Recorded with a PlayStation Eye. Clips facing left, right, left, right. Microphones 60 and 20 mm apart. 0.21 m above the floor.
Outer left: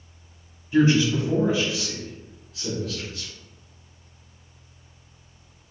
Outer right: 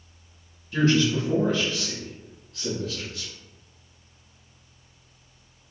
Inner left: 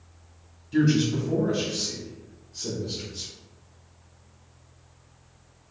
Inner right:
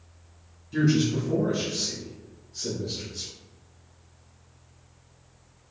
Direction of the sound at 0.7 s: 20° left (ahead or behind).